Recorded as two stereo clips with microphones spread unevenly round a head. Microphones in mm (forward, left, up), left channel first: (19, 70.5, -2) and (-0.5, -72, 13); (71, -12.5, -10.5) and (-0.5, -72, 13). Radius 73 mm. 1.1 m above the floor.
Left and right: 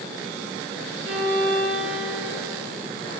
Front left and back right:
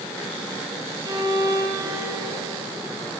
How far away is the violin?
About 8.5 m.